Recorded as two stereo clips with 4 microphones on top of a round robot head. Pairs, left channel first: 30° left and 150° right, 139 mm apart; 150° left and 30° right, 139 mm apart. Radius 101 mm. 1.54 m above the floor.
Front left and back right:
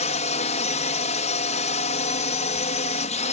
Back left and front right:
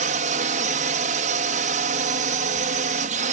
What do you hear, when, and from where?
0.0 s a drone: 5° right